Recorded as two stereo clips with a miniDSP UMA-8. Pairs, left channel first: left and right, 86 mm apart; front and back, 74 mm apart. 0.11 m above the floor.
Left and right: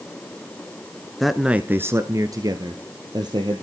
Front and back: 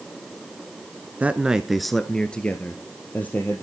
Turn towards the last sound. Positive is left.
turn(degrees=-65)